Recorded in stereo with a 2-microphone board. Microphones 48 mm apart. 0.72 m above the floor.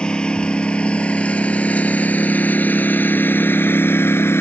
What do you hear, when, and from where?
0.0 s a lawn mower: 20° left (ahead or behind); by 4.4 s 60° left (ahead or behind)